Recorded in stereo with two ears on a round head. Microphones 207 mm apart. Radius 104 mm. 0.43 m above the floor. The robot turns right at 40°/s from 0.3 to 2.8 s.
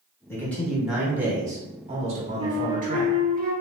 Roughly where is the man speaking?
Behind.